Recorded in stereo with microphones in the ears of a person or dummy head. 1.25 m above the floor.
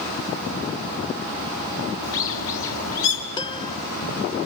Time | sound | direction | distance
2.0 | a bird | 80° left | 5 m
3.4 | a piano | 20° left (ahead or behind) | 0.6 m